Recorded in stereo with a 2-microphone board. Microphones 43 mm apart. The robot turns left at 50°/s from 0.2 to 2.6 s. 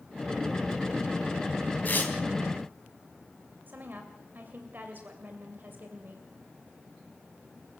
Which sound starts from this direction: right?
A woman speaking, at 3.7 s.